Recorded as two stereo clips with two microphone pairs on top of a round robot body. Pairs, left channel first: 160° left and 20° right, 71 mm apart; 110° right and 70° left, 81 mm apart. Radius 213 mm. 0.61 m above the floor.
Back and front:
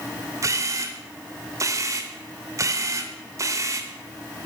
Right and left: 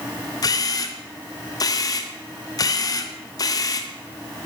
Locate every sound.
0.4 s a camera shutter: 65° right, 0.8 m